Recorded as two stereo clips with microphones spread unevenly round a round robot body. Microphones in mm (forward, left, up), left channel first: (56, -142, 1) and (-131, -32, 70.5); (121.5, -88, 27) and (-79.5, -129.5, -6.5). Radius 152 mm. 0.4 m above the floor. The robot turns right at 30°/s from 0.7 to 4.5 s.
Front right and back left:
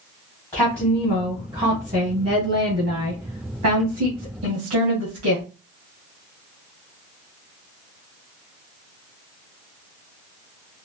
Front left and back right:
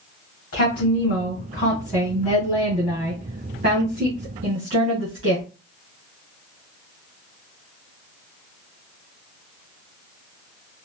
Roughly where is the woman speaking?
Ahead left.